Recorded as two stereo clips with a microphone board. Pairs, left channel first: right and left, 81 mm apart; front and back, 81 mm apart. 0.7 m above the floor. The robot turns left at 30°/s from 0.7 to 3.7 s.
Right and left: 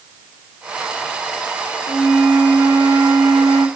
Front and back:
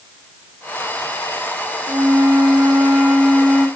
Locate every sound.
1.9 s a flute: 130° left, 1.5 m; by 3.7 s 75° left, 1.5 m